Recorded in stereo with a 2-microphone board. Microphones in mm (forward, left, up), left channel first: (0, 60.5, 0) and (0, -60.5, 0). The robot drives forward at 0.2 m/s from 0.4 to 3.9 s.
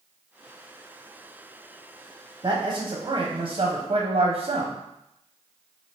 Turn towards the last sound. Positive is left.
turn(degrees=-50)  # may be behind; listen again after turning